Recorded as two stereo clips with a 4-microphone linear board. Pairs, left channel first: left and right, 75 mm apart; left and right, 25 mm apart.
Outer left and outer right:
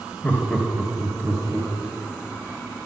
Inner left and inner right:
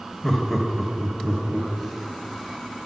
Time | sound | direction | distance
0.2 | laughter | 25° left (ahead or behind) | 0.9 m